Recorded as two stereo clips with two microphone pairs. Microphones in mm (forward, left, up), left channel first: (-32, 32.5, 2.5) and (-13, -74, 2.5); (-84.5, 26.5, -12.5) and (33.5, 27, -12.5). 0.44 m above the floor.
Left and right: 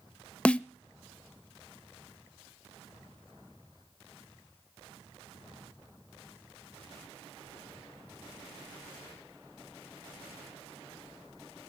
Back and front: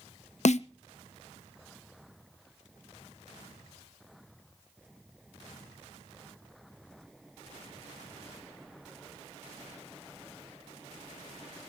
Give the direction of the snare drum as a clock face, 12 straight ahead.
6 o'clock.